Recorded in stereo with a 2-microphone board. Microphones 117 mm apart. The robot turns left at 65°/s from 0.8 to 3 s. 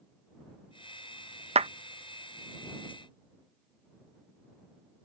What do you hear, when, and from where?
1.6 s a clap: 65° right (ahead or behind); by 1.7 s 60° right (ahead or behind)